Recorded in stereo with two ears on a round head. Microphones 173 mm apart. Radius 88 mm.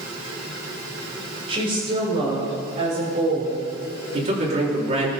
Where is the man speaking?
35° right (ahead or behind), 5 m.